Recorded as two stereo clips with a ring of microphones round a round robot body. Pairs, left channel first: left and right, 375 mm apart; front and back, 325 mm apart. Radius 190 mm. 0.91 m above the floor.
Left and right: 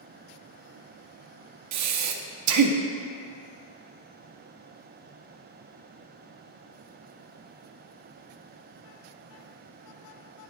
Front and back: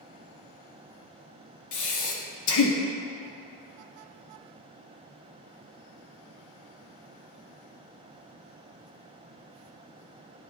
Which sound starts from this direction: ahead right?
Breathing, at 1.7 s.